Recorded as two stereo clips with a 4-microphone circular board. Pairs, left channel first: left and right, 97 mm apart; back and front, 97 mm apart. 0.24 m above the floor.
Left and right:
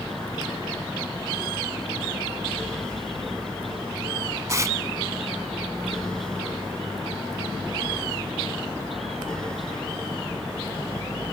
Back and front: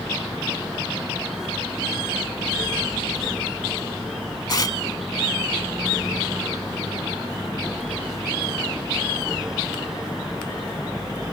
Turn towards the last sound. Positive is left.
turn(degrees=-140)